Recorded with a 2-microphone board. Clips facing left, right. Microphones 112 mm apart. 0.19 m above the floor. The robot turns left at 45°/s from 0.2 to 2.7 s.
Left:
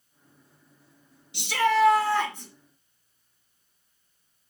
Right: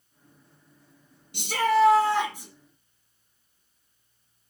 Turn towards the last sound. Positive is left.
turn(degrees=175)